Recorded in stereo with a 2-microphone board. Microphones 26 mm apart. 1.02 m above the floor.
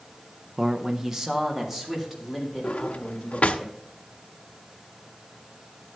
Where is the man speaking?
30° right (ahead or behind), 0.6 m; by 3.6 s 10° right (ahead or behind), 5 m.